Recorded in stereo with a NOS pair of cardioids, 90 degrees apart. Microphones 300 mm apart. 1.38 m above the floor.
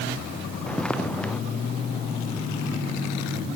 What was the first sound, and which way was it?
Footsteps, 5° left.